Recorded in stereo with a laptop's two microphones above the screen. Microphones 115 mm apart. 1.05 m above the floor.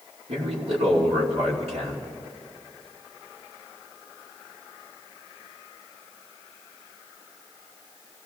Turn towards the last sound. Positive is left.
turn(degrees=-60)  # may be behind; listen again after turning